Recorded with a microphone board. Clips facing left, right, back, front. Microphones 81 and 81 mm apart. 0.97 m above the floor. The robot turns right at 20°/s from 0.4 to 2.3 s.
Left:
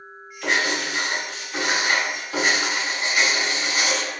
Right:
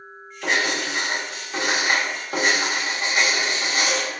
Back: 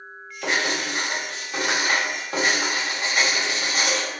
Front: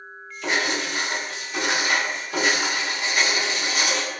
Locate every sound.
0.4 s writing: 175° right, 1.2 m; by 4.1 s 135° right, 1.2 m